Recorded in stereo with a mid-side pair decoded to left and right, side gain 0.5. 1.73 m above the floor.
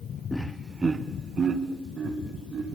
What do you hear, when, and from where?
0.3 s laughter: 20° left, 0.7 m; by 2.8 s 45° right, 4 m